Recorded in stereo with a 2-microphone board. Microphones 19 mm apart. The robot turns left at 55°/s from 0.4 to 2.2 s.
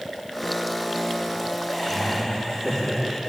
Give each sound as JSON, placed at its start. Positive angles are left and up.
{"t": 1.7, "sound": "laughter", "side_deg": -50, "distance_m": 2.0}